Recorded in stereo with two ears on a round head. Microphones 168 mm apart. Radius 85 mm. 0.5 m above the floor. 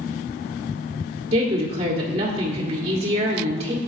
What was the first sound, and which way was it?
A woman speaking, 30° right (ahead or behind).